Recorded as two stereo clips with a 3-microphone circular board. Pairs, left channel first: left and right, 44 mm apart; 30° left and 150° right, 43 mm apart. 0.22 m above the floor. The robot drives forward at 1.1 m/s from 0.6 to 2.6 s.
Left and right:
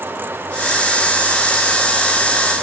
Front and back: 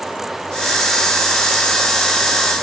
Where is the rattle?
I don't hear a rattle.